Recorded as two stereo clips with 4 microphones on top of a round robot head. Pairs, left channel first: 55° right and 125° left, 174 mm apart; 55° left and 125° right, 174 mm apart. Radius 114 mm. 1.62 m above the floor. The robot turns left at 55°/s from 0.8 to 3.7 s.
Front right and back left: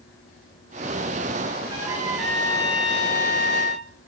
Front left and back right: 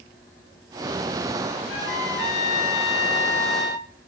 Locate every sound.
1.7 s a trumpet: 65° left, 9 m; by 3.9 s 45° right, 9 m